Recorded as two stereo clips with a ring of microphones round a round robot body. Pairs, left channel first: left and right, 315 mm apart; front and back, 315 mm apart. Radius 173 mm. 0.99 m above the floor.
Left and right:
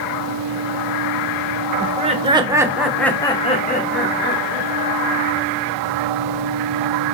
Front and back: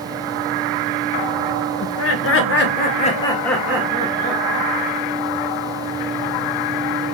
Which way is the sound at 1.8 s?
25° right.